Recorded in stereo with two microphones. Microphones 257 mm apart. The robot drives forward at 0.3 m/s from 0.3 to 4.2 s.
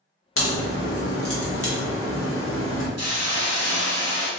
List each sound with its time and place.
0.4 s a crack: 60° left (ahead or behind), 1.1 m; by 2.9 s 55° left (ahead or behind), 1.2 m
3.0 s a hiss: 75° right (ahead or behind), 1.0 m; by 4.3 s 65° right (ahead or behind), 1.0 m